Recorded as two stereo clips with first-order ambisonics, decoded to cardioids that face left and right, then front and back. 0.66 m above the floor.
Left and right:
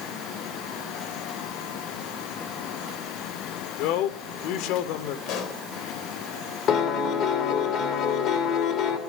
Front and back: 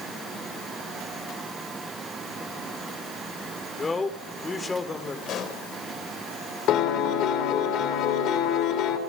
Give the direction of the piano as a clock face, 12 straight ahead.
11 o'clock.